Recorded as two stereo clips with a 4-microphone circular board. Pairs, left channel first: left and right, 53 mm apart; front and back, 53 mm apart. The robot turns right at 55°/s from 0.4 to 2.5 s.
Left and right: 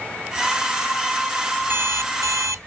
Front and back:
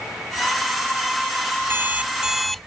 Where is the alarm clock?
135° right; by 2.7 s 90° right.